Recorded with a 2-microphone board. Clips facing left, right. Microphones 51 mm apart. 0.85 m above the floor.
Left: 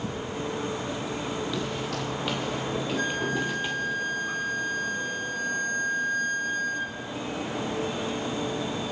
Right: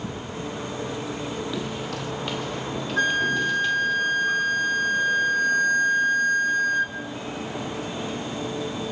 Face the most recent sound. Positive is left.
turn(degrees=-55)  # may be behind; listen again after turning